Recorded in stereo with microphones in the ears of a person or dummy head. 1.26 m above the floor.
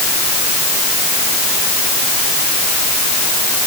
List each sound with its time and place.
Only background noise.